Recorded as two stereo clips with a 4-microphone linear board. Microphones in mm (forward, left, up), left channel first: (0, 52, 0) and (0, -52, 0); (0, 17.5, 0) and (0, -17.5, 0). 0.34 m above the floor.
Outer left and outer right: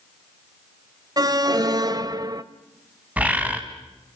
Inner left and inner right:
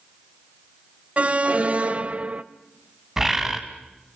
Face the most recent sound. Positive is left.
turn(degrees=-15)  # may be behind; listen again after turning